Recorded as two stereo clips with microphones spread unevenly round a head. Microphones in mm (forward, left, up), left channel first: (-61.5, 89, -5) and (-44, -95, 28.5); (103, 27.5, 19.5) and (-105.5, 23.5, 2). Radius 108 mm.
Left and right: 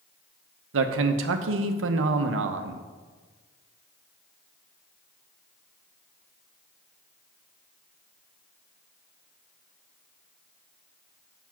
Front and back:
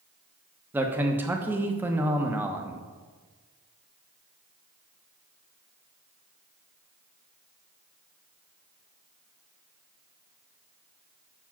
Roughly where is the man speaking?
Right.